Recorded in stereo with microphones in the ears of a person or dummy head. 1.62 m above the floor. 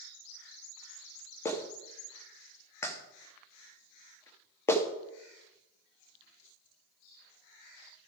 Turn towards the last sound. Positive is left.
turn(degrees=15)  # may be behind; listen again after turning